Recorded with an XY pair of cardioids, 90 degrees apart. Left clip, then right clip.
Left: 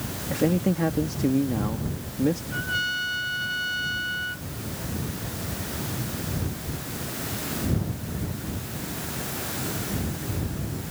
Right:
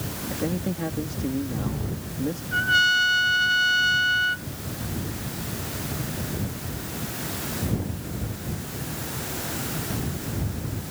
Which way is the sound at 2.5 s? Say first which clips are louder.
Right 8 dB; 55° right.